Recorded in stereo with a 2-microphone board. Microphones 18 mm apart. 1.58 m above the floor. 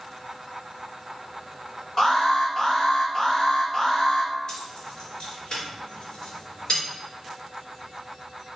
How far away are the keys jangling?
About 4 m.